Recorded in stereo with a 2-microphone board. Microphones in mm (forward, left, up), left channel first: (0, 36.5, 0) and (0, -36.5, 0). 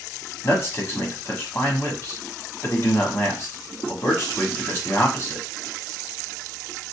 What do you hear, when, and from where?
0.4 s a man speaking: 40° left (ahead or behind), 1.3 m